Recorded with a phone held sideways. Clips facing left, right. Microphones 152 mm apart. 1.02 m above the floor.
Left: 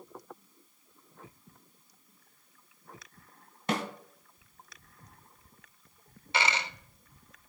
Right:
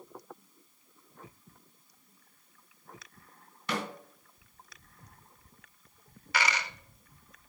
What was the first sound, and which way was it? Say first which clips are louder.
A snare drum: left 3 dB; 50° left (ahead or behind).